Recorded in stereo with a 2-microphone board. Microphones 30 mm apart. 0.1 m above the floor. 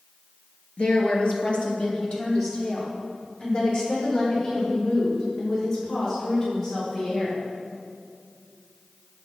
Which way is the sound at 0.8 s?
35° left (ahead or behind).